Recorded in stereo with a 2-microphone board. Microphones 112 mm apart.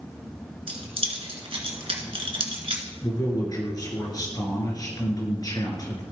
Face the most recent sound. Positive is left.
turn(degrees=35)  # may be behind; listen again after turning